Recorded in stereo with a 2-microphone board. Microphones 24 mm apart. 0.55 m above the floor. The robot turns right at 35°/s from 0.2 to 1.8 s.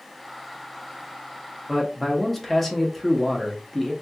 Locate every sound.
1.7 s a man speaking: 5° left (ahead or behind), 0.8 m